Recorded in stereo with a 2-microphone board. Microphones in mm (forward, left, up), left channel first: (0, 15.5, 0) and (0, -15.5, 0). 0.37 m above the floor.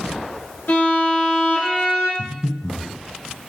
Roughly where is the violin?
Left.